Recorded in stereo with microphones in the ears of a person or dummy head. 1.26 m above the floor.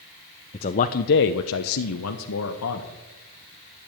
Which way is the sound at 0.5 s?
25° left (ahead or behind).